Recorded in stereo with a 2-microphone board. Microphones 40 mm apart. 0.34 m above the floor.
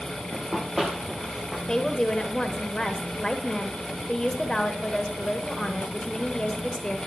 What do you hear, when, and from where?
0.3 s running footsteps: 5° right (ahead or behind), 1.2 m; by 1.6 s centre (ahead or behind), 2.5 m
1.7 s a woman speaking: 20° left (ahead or behind), 0.9 m